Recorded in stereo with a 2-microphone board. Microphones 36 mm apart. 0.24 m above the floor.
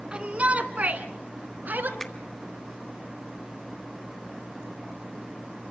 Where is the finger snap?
15° left (ahead or behind), 2.5 m.